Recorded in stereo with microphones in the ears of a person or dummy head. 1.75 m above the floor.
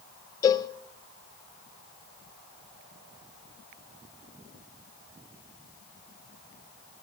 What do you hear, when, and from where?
0.4 s a cowbell: 25° left (ahead or behind), 0.7 m